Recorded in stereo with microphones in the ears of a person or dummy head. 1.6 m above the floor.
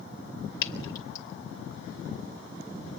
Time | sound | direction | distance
0.6 | dripping | 25° left (ahead or behind) | 2.5 m